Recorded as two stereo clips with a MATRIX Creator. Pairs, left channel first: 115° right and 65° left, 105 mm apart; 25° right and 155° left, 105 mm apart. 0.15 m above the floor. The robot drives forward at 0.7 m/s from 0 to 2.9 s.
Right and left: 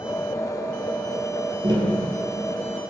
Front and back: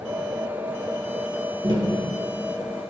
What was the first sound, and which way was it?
Tapping, 110° left.